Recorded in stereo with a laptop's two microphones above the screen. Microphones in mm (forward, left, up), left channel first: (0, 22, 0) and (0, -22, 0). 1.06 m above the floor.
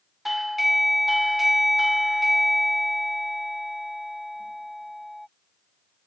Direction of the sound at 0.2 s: Centre (ahead or behind).